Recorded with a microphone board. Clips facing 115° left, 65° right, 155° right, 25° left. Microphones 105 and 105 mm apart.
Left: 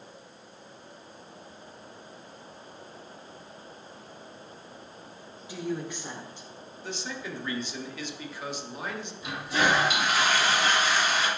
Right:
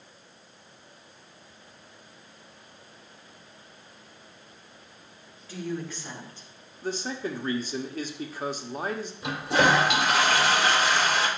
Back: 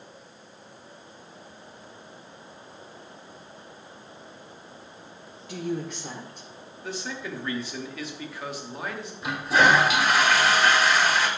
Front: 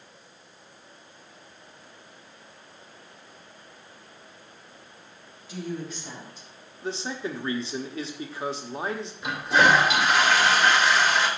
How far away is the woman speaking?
About 2 m.